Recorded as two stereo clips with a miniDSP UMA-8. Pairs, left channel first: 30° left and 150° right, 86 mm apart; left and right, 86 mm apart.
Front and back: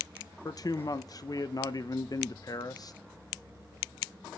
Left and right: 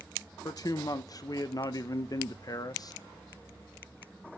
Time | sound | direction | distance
0.5 | a man speaking | 60° left | 0.6 m